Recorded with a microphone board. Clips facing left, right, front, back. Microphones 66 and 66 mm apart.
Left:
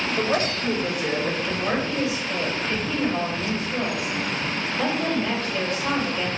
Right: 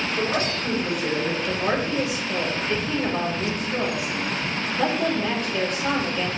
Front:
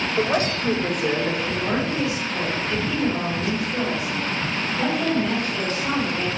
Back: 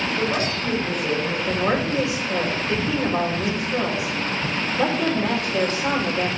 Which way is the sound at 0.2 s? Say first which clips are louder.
Left 2 dB, front 5 dB; 20° left.